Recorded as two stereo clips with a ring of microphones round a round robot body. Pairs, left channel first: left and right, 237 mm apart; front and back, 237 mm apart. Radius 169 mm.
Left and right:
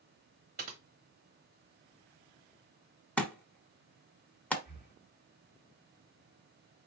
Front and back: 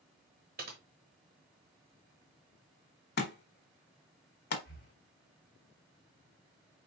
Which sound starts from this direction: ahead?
A thud, at 3.2 s.